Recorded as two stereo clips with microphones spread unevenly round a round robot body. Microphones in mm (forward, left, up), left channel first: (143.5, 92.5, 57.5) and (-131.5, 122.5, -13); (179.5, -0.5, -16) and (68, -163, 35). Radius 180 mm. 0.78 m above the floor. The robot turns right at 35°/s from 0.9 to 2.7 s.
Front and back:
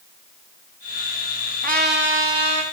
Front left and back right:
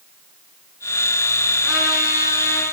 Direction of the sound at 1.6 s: 110° left.